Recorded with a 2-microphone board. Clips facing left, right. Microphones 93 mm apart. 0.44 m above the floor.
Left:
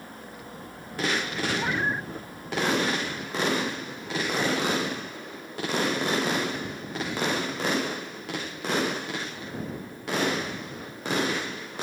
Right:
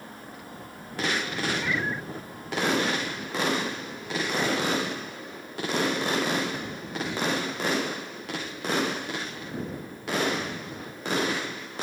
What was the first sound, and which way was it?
A cat meowing, 45° left (ahead or behind).